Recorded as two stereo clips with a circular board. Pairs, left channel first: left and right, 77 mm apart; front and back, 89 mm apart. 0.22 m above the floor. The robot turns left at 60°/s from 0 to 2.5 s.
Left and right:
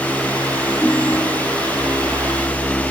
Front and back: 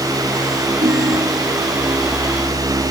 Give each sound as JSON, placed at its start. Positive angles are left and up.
{"t": 0.8, "sound": "a ringtone", "azimuth_deg": 180}